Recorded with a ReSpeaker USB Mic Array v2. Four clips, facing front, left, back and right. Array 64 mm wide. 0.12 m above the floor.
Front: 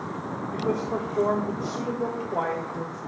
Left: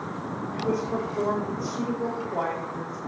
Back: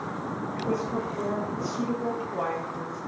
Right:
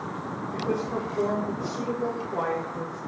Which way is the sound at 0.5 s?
15° left.